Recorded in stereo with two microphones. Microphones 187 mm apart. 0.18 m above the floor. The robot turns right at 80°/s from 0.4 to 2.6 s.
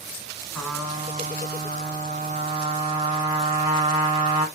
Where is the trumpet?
170° left, 1.9 m; by 4.5 s 30° right, 1.9 m.